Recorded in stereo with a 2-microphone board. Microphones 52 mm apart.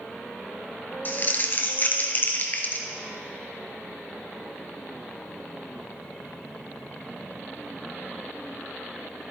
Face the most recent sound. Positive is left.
turn(degrees=40)  # may be behind; listen again after turning